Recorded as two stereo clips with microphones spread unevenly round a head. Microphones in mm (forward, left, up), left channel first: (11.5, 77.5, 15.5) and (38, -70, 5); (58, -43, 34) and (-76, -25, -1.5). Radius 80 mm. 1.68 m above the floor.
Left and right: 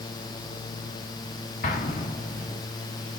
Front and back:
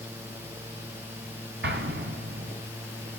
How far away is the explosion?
About 1.0 m.